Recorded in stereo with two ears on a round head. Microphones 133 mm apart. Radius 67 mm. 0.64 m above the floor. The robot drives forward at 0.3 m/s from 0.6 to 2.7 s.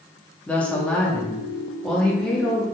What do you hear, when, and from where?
0.5 s a woman speaking: 10° left (ahead or behind), 0.6 m; by 2.6 s 5° left (ahead or behind), 1.0 m